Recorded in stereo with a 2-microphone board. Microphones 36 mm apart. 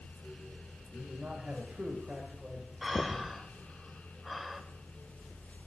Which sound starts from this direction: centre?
Breathing, at 2.8 s.